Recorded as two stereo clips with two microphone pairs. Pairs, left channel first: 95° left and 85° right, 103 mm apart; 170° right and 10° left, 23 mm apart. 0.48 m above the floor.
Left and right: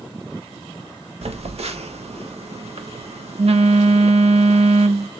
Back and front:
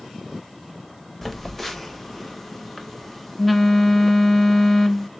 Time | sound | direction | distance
1.2 | a phone buzzing | 90° right | 0.6 m